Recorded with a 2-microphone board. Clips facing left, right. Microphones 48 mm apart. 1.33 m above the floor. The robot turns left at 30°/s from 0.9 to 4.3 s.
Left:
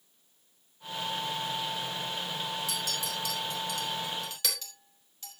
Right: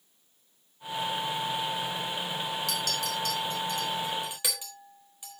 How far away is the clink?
About 3.5 m.